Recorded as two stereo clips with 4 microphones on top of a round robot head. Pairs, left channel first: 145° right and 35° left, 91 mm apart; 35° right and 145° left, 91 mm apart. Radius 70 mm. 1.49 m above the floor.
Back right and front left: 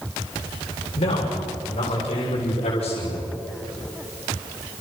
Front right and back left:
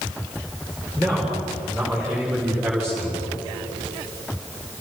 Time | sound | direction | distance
1.0 | a man speaking | 115° right | 7 m